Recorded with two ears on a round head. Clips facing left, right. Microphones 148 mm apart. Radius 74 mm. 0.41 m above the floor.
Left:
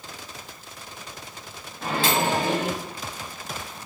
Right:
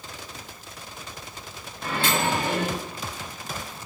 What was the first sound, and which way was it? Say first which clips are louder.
A microwave: left 2 dB; 65° left (ahead or behind).